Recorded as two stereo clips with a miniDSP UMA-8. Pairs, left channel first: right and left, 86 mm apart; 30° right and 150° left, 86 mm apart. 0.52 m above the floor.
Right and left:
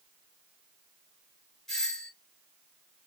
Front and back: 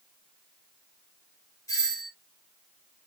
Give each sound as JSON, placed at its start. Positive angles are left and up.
{"t": 1.7, "sound": "a doorbell", "azimuth_deg": -10, "distance_m": 2.0}